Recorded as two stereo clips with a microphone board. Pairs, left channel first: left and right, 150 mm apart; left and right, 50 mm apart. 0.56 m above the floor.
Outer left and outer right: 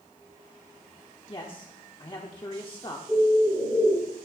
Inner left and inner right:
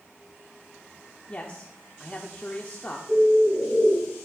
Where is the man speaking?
35° left (ahead or behind), 1.1 m.